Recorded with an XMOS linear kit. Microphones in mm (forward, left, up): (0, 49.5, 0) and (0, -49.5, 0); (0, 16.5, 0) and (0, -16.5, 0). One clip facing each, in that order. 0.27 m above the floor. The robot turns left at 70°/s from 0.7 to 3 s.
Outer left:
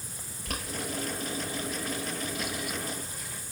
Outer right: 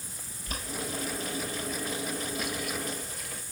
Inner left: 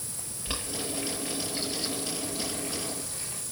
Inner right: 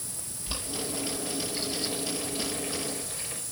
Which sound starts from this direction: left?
Boiling, at 0.5 s.